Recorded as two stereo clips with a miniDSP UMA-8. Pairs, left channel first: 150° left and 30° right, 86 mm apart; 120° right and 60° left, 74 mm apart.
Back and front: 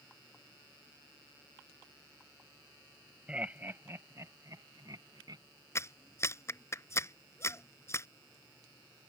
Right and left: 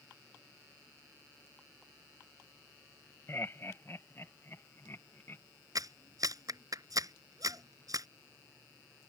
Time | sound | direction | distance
3.3 | laughter | 100° right | ?
5.8 | a clap | 95° left | ?